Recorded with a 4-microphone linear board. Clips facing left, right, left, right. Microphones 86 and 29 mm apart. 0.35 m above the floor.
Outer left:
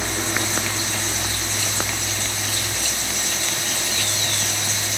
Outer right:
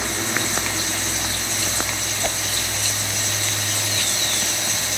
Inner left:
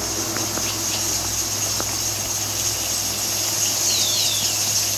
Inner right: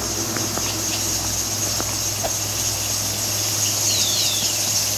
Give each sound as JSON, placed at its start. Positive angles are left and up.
{"t": 2.2, "sound": "a whoosh", "side_deg": -65}